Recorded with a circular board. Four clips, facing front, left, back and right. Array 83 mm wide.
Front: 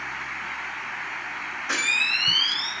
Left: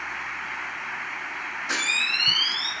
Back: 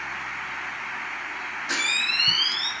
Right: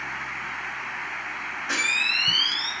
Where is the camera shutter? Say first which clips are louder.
Right 1 dB, front 2 dB; 25° right, 1.6 m.